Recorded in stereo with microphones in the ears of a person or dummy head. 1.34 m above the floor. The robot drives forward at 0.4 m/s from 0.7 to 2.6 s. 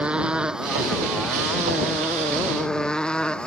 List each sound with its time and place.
0.0 s a motorcycle: 10° right (ahead or behind); by 3.5 s centre (ahead or behind)